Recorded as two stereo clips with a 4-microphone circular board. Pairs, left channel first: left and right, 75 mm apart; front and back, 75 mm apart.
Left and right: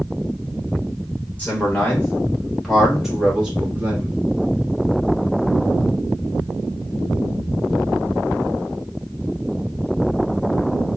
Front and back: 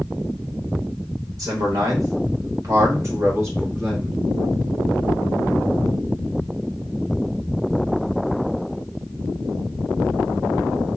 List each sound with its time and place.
1.4 s a man speaking: 155° left, 1.7 m; by 4.1 s 130° right, 1.1 m